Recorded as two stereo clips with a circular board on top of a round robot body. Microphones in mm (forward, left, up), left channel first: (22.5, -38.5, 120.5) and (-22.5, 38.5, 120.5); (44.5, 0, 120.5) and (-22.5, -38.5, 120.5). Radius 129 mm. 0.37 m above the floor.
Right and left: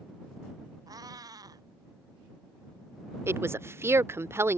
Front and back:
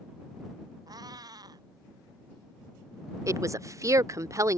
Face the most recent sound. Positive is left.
turn(degrees=175)